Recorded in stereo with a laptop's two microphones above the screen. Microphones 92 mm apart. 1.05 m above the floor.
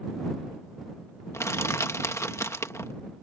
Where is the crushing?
30° left (ahead or behind).